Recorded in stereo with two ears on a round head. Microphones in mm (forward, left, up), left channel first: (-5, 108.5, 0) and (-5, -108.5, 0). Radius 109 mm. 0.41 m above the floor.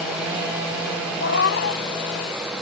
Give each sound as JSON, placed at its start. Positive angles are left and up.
{"t": 1.2, "sound": "a cat meowing", "side_deg": 50}